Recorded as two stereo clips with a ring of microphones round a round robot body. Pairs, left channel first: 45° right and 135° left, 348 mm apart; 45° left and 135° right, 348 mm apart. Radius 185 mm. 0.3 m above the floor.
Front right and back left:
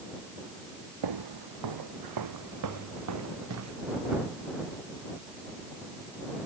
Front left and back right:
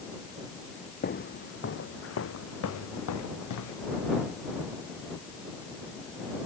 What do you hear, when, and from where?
1.0 s footsteps: 110° left; by 3.8 s 85° left